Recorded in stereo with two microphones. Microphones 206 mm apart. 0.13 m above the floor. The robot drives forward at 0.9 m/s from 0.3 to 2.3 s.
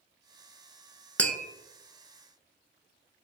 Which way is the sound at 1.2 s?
5° left (ahead or behind).